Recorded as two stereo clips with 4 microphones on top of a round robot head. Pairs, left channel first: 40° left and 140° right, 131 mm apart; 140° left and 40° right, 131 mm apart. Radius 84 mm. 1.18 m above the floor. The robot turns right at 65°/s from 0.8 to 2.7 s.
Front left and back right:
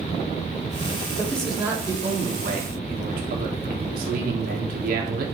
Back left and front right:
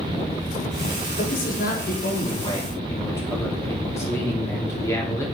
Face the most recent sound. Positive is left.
turn(degrees=-150)